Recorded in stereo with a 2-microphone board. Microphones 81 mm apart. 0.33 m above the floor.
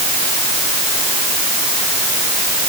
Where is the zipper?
I don't hear a zipper.